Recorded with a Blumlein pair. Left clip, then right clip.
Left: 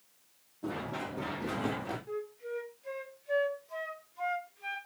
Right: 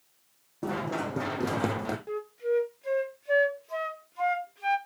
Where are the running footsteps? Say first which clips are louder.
Right 6 dB; 35° right, 4 m; by 2.0 s 65° right, 3.5 m.